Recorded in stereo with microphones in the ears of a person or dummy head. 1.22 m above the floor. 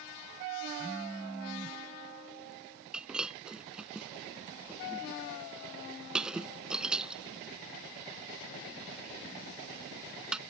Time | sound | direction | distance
0.8 | a phone buzzing | 10° right (ahead or behind) | ?
2.9 | breaking glass | 5° right (ahead or behind) | ?